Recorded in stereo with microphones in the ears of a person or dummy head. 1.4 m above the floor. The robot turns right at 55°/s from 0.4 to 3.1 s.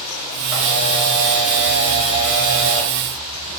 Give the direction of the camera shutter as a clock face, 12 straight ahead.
12 o'clock.